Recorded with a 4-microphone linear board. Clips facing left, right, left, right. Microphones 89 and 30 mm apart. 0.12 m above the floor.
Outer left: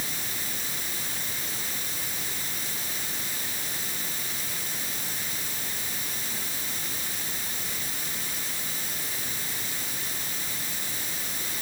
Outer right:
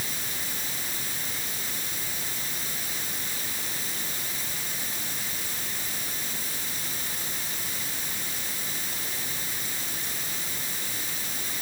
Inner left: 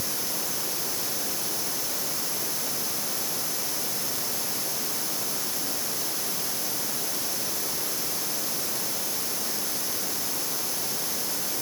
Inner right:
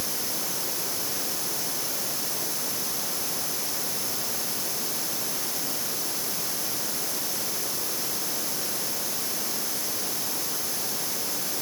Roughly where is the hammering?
I don't hear hammering.